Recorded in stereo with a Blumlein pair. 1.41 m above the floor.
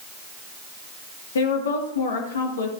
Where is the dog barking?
I don't hear a dog barking.